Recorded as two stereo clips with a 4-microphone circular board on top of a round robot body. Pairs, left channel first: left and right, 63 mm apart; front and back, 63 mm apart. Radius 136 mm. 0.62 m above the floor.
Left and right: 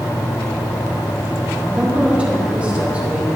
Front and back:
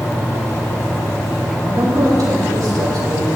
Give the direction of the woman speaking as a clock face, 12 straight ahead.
5 o'clock.